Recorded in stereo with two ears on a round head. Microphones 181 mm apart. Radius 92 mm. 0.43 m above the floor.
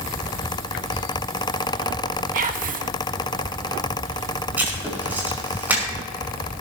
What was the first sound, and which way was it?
Whispering, 45° right (ahead or behind).